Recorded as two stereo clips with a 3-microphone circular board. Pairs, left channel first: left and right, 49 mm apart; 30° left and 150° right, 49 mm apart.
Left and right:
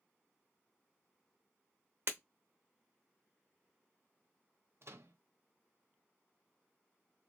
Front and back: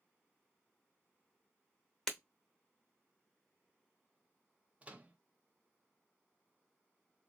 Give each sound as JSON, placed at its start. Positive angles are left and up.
{"t": 2.1, "sound": "breaking glass", "azimuth_deg": -50, "distance_m": 0.9}
{"t": 4.8, "sound": "a microwave", "azimuth_deg": -90, "distance_m": 0.5}